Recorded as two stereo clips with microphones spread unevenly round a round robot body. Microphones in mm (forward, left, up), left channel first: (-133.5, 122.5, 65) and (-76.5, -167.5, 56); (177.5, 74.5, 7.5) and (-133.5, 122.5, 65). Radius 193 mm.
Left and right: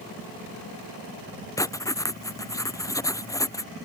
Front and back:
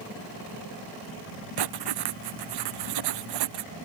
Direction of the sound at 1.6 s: Straight behind.